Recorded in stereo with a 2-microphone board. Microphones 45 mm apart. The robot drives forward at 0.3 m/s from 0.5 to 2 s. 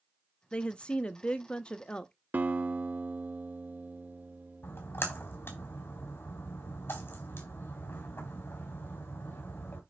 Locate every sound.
0.5 s a woman speaking: 25° left (ahead or behind), 0.5 m
2.3 s a guitar: 45° right (ahead or behind), 0.6 m
4.6 s a splash: 55° left (ahead or behind), 3.5 m